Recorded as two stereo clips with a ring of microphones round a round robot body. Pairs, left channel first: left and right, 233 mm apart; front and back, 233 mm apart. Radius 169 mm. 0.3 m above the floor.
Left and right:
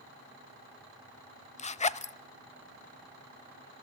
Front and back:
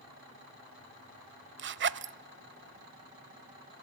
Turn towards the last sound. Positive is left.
turn(degrees=150)